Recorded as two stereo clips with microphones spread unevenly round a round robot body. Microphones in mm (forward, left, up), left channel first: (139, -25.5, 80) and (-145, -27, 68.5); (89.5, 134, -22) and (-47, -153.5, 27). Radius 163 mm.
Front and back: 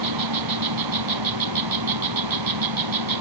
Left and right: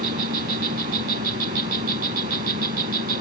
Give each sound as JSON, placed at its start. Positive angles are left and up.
{"t": 0.0, "sound": "an insect", "azimuth_deg": 180}